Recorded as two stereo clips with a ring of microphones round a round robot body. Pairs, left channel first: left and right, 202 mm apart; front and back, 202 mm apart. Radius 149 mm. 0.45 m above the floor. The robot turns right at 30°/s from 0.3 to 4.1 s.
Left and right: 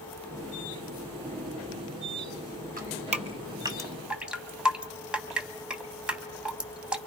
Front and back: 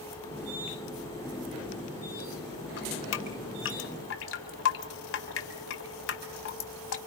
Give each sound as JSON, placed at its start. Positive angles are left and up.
{"t": 2.8, "sound": "dripping", "azimuth_deg": -45, "distance_m": 2.5}